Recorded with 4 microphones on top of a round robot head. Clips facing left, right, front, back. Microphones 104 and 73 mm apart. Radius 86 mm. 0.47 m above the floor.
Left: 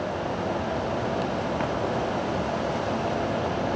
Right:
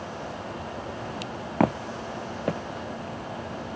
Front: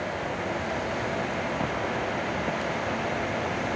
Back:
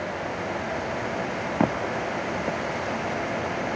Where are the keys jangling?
No keys jangling in this recording.